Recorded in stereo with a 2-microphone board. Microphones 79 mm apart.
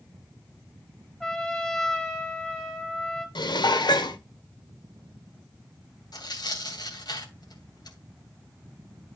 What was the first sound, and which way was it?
A trumpet, 10° left (ahead or behind).